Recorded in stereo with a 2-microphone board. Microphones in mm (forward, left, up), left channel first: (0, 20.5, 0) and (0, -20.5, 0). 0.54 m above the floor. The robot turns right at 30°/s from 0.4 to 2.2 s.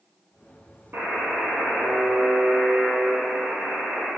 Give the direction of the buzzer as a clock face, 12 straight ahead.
4 o'clock.